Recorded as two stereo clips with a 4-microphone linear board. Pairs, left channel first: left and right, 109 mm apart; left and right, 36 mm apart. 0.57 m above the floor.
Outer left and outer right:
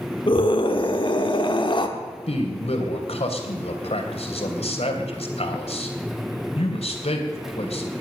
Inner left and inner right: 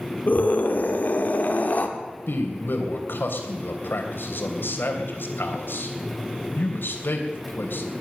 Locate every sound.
0.3 s a scream: 50° left (ahead or behind), 1.6 m
2.3 s a man speaking: 70° left (ahead or behind), 3 m